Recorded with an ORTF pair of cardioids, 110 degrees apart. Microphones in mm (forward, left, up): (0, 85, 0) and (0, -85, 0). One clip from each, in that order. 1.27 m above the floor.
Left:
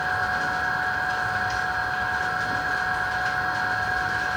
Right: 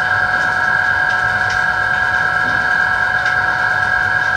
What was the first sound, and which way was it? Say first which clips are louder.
A machine running: right 10 dB; 70° right.